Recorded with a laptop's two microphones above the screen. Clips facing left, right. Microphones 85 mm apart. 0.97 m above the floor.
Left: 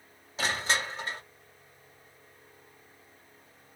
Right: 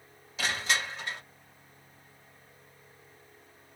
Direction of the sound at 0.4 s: 35° left (ahead or behind).